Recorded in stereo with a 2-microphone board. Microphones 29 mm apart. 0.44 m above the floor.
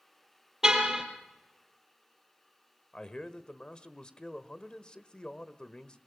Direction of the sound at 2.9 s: 30° left (ahead or behind).